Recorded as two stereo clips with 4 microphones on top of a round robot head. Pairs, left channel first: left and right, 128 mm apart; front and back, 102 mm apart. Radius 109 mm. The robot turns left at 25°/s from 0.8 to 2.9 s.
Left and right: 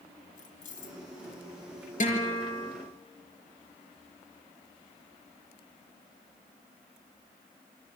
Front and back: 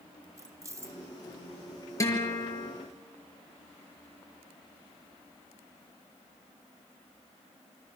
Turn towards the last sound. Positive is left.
turn(degrees=40)